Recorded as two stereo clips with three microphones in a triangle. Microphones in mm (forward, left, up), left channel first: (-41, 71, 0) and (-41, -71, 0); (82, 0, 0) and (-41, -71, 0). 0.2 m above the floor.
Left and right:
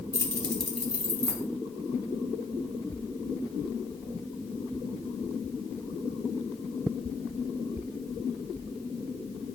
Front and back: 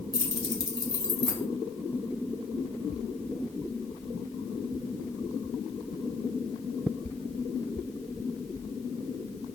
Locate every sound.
0.1 s keys jangling: 50° left, 0.8 m; by 1.4 s 30° right, 1.0 m